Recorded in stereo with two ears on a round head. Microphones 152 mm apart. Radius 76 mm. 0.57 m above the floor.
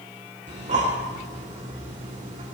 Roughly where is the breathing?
Right.